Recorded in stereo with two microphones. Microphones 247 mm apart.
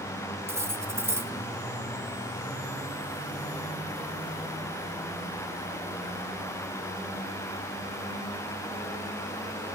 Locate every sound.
0.5 s cutlery clinking: 10° right (ahead or behind), 0.8 m